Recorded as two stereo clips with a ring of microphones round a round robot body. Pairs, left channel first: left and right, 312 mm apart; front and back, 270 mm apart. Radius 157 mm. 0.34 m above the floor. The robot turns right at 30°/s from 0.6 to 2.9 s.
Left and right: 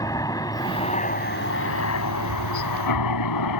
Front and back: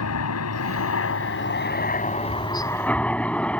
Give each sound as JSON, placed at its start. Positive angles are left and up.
{"t": 0.0, "sound": "a helicopter", "azimuth_deg": 10}